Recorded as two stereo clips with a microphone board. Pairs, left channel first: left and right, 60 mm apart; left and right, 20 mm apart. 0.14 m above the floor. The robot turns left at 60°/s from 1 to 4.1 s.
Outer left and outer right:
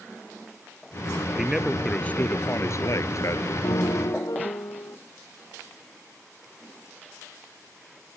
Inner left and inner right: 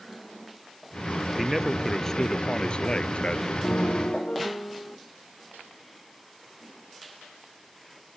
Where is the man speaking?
165° right; by 3.5 s 65° left.